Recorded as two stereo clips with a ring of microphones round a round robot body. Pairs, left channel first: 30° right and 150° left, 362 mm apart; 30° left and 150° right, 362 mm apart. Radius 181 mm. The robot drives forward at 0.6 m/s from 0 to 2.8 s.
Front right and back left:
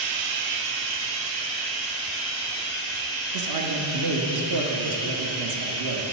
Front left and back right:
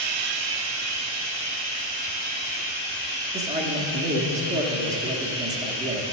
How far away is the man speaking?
About 0.9 m.